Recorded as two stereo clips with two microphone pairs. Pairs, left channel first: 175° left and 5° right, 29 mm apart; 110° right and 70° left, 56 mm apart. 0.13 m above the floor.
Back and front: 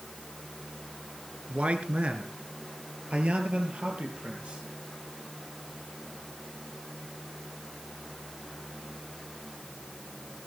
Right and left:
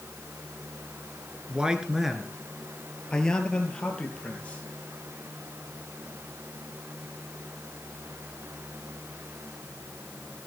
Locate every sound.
1.5 s a man speaking: straight ahead, 2.0 m; by 4.6 s 50° right, 4 m